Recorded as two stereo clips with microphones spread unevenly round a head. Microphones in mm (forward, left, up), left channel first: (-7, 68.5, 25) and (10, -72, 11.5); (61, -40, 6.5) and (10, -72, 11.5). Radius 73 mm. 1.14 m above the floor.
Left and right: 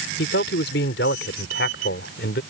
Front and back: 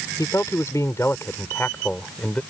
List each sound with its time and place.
0.2 s a man speaking: 95° left; by 2.4 s 115° left